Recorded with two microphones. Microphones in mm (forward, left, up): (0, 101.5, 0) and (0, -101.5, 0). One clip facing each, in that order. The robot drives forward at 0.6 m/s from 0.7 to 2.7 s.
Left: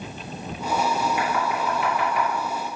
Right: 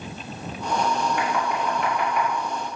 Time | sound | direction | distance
1.2 | knocking | 5° left (ahead or behind) | 2.5 m